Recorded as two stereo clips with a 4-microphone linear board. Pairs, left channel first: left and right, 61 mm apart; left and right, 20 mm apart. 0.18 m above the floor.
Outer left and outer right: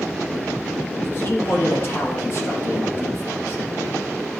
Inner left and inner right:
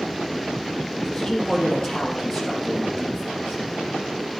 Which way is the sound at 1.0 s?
40° left (ahead or behind).